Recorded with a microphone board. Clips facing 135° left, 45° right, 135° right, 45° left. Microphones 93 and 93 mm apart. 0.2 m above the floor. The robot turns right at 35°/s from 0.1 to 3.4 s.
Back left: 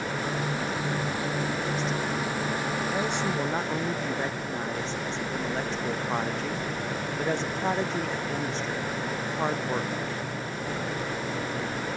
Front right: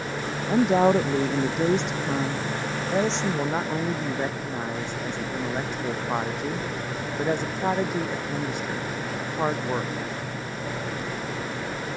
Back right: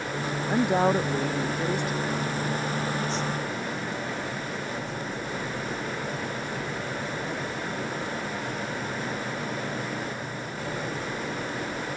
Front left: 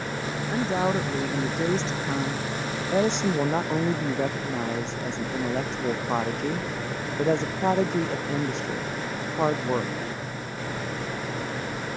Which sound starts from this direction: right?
A woman speaking, at 0.5 s.